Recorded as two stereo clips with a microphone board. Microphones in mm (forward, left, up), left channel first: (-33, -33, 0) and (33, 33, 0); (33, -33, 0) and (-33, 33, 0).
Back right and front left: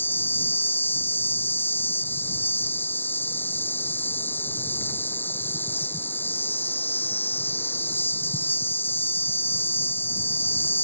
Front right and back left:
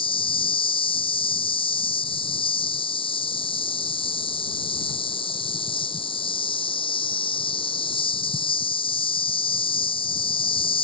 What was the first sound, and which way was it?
An insect, 65° right.